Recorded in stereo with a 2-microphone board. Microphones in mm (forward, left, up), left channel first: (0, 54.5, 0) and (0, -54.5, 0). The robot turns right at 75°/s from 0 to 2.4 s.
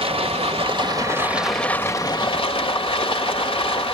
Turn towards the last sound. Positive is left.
turn(degrees=65)